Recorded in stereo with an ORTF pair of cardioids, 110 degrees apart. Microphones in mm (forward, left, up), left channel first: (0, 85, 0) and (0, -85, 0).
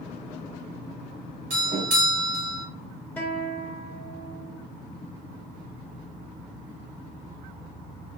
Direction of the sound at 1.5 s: 60° right.